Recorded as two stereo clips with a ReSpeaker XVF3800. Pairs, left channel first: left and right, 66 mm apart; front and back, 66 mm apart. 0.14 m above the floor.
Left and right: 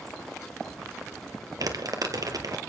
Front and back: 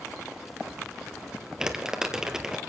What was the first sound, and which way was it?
Crumpling, 105° right.